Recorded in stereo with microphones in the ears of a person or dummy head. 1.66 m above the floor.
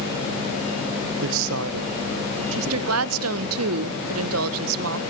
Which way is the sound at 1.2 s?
75° right (ahead or behind).